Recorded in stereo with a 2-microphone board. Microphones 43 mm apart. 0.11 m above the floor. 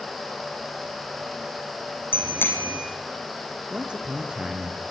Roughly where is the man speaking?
Right.